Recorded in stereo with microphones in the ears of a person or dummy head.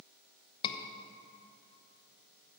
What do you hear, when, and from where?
0.6 s a scream: 25° left (ahead or behind), 1.0 m